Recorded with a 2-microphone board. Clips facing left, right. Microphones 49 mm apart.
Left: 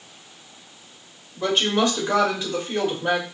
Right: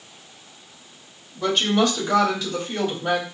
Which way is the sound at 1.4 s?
25° left (ahead or behind).